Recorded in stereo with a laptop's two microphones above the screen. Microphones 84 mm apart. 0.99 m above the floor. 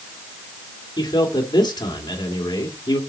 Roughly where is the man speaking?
Left.